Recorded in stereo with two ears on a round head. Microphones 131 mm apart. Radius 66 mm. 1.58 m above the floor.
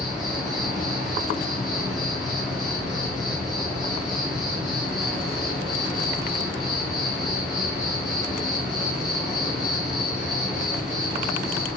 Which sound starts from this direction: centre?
An insect, at 0.0 s.